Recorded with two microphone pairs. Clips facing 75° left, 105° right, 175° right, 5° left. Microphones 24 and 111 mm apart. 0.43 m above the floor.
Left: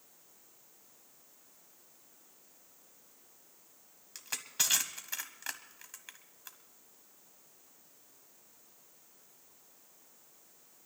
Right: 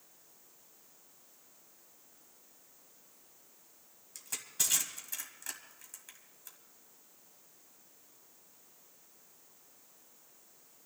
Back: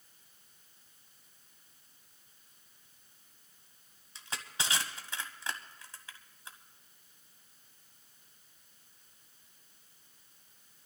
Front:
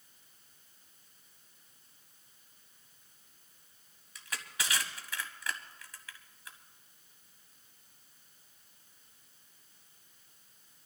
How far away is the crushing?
About 1.3 m.